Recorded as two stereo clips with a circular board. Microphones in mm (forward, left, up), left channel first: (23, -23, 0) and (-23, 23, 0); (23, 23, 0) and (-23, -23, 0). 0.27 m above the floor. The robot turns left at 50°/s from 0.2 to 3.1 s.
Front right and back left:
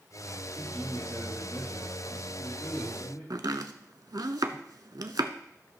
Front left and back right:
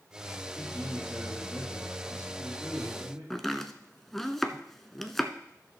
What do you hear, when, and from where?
0.6 s a man speaking: 50° left, 5.5 m; by 3.2 s 75° right, 5.5 m
3.3 s chopping: 130° left, 0.7 m